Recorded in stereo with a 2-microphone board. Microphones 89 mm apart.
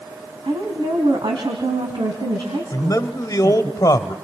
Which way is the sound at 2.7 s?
45° left (ahead or behind).